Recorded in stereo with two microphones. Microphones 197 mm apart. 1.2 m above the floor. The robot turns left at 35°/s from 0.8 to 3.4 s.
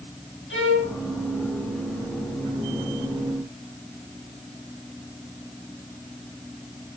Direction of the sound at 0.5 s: 80° left.